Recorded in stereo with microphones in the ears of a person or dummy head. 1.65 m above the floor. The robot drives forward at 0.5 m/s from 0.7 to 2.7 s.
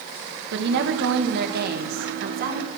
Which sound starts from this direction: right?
A woman speaking, at 0.5 s.